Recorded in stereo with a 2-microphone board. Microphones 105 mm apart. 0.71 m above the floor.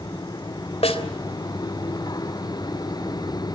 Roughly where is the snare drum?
Left.